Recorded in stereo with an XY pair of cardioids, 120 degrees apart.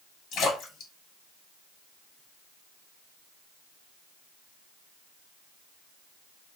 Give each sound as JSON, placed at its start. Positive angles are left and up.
{"t": 0.3, "sound": "a splash", "azimuth_deg": 70, "distance_m": 1.3}